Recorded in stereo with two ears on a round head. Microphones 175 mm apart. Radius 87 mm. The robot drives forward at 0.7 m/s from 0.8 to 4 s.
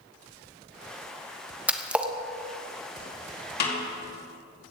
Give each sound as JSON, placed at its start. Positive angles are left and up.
{"t": 1.7, "sound": "a splash", "side_deg": -5, "distance_m": 0.9}
{"t": 3.6, "sound": "a snare drum", "side_deg": 55, "distance_m": 3.5}